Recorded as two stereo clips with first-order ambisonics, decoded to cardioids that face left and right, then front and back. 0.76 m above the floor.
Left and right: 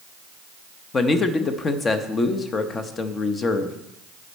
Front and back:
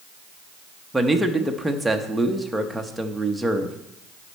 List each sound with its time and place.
0.9 s a man speaking: 100° left, 0.6 m